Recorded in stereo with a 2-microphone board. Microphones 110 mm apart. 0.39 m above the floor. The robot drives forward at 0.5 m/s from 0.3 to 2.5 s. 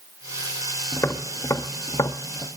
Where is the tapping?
25° left (ahead or behind), 0.9 m; by 2.5 s 30° left (ahead or behind), 0.7 m.